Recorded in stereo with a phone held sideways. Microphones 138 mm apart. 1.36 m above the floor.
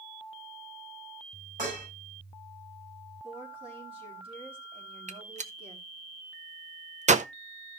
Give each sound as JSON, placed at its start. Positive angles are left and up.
{"t": 1.6, "sound": "dishes clattering", "side_deg": -85, "distance_m": 7.0}
{"t": 3.2, "sound": "a woman speaking", "side_deg": -45, "distance_m": 4.0}
{"t": 5.1, "sound": "a gunshot", "side_deg": -60, "distance_m": 0.7}